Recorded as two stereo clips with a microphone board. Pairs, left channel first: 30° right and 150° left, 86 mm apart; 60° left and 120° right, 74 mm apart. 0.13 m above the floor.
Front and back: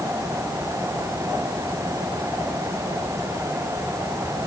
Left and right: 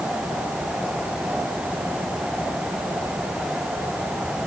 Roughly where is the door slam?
No door slam in this recording.